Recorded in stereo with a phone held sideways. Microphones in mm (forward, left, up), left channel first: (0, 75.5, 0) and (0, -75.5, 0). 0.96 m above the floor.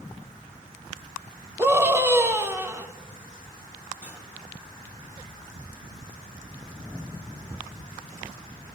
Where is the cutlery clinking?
15° right (ahead or behind), 5.5 m.